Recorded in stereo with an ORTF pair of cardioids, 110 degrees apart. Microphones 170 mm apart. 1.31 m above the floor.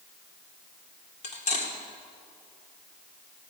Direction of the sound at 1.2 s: 50° left.